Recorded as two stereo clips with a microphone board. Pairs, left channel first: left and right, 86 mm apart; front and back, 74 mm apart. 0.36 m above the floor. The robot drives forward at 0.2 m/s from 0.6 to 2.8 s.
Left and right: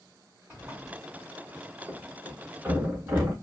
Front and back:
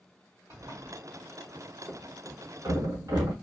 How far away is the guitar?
No guitar in this recording.